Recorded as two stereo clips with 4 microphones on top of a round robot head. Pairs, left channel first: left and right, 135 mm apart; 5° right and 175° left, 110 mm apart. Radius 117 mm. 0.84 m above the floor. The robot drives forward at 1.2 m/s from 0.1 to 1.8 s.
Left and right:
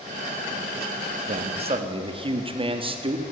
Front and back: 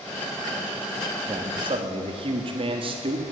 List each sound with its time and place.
1.3 s a man speaking: 120° right, 1.1 m; by 3.2 s 140° right, 1.5 m